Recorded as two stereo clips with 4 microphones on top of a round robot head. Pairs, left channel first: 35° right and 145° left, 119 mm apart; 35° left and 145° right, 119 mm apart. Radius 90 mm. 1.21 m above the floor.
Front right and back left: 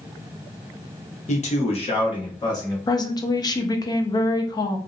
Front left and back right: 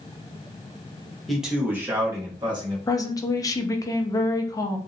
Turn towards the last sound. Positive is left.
turn(degrees=-5)